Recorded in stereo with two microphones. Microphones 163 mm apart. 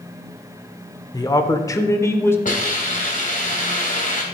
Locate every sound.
1.1 s a man speaking: 20° left (ahead or behind), 0.8 m; by 2.4 s 15° left (ahead or behind), 1.1 m
2.5 s a hiss: 50° left (ahead or behind), 2.5 m